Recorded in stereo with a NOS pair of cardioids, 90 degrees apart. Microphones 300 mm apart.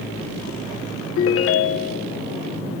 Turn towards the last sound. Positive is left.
turn(degrees=50)